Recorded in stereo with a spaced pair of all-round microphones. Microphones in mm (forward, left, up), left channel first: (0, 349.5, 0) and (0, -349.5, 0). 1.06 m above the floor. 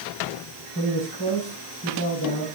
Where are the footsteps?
I don't hear footsteps.